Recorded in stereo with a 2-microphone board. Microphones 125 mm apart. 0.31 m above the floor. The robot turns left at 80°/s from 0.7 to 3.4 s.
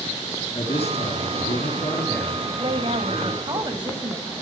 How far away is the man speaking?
About 4 m.